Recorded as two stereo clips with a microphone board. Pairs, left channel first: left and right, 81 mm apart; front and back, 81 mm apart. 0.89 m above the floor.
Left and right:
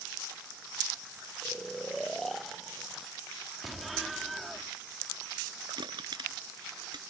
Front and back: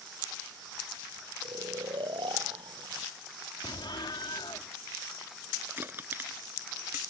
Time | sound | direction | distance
1.4 | snoring | 175° left | ?
3.6 | an explosion | straight ahead | ?
5.8 | crushing | 115° right | ?